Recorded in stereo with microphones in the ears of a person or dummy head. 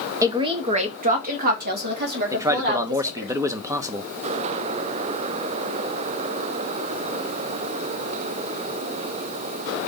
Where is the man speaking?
15° right (ahead or behind), 0.8 m.